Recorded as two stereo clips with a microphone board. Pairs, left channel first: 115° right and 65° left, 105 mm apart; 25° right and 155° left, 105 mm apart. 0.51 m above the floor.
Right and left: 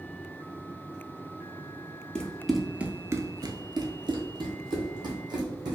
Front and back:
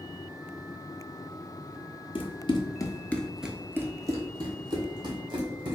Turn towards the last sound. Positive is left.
turn(degrees=115)